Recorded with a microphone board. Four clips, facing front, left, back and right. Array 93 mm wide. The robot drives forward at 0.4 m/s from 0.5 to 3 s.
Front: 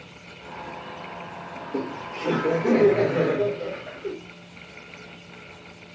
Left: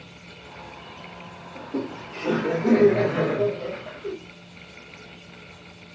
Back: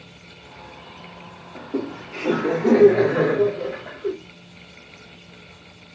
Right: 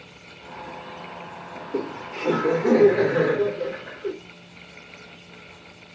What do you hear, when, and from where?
1.6 s laughter: straight behind, 2.5 m